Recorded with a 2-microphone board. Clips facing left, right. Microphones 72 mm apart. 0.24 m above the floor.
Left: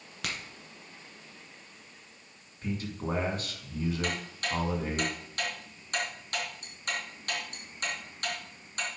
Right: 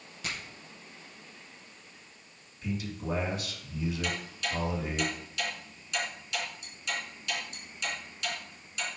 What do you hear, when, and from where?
0.2 s a crack: 70° left (ahead or behind), 2 m
2.6 s a man speaking: 40° left (ahead or behind), 2 m
4.0 s ticking: 50° left (ahead or behind), 2.5 m